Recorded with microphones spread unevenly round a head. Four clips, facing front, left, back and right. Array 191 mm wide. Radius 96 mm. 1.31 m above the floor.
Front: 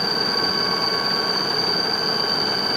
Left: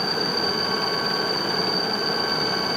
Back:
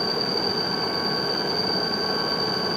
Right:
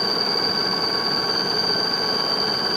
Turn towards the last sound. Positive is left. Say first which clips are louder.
# even, front 2 dB
turn(degrees=170)